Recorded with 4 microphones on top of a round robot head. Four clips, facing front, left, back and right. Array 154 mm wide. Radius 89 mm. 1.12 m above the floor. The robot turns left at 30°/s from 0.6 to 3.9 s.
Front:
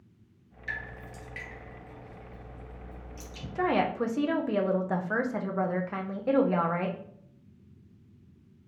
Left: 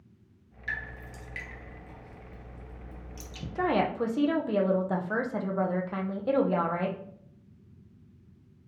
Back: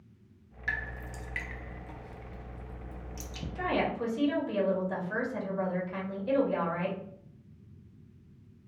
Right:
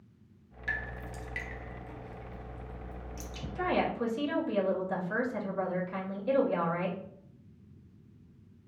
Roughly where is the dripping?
Behind right.